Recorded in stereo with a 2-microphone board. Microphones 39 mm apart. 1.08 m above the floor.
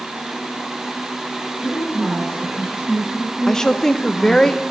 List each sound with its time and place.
1.6 s a woman speaking: 10° right (ahead or behind), 8 m
3.5 s a woman speaking: 10° left (ahead or behind), 0.8 m